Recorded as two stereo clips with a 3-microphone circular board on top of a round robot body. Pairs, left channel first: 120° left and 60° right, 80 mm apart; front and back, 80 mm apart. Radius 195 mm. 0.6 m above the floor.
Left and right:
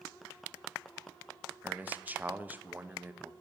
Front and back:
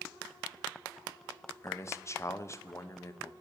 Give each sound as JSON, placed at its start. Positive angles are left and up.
{"t": 1.6, "sound": "a man speaking", "azimuth_deg": -10, "distance_m": 1.1}